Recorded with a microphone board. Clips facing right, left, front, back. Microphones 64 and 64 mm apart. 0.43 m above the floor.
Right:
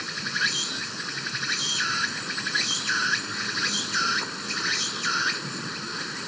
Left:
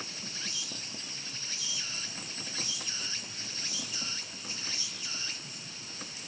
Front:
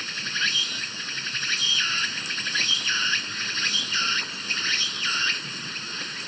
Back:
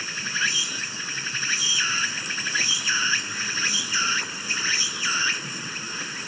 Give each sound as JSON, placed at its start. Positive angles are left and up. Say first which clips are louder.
{"t": 0.0, "sound": "an insect", "louder": "right 15 dB, back 2 dB", "azimuth_deg": -100}